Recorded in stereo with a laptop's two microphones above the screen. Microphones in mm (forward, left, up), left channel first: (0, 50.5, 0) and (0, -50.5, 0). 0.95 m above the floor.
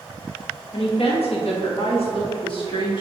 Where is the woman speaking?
65° left (ahead or behind), 1.0 m; by 3.0 s 50° left (ahead or behind), 1.5 m.